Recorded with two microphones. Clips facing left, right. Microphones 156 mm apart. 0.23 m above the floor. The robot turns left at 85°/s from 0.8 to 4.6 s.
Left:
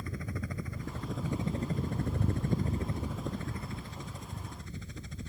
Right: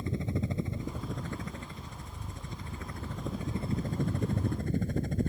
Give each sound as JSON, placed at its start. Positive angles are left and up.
{"t": 0.0, "sound": "a helicopter", "azimuth_deg": -155}